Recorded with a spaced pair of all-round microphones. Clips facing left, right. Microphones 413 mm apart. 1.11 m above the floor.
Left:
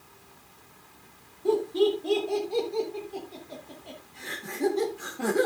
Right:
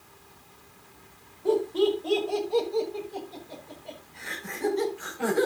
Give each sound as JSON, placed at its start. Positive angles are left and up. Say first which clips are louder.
{"t": 1.4, "sound": "laughter", "louder": "even", "side_deg": 35, "distance_m": 5.0}